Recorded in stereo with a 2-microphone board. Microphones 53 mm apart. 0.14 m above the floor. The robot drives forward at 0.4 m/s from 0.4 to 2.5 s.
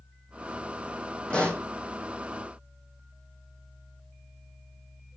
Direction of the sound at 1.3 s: 15° left (ahead or behind).